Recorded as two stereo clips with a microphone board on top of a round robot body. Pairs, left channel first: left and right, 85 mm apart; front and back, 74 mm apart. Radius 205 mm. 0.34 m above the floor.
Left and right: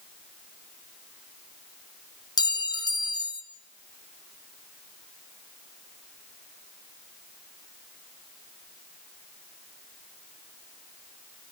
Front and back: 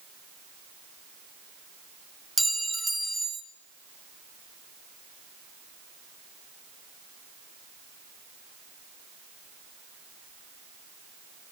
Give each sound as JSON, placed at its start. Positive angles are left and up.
{"t": 2.4, "sound": "a clink", "azimuth_deg": 90, "distance_m": 0.7}